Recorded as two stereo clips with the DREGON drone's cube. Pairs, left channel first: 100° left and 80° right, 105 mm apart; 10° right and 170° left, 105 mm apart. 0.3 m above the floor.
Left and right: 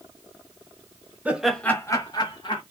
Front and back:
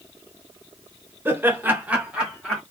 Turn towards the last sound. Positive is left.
turn(degrees=85)